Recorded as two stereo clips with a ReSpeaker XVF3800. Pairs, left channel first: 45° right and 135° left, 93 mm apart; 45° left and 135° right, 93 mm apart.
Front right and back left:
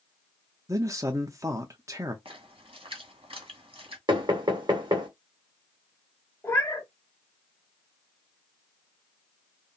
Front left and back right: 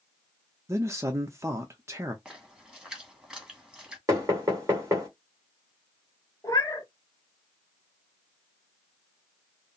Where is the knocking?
170° left, 2.5 m.